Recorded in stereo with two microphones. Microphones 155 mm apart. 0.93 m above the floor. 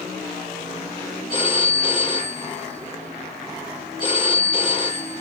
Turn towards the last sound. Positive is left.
turn(degrees=30)  # may be behind; listen again after turning